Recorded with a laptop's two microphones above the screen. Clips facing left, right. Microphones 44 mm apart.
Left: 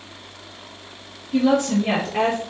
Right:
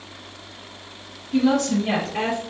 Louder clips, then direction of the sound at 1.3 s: Left 1 dB; 10° left (ahead or behind).